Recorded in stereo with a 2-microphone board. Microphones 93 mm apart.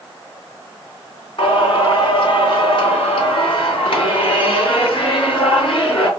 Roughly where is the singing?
Left.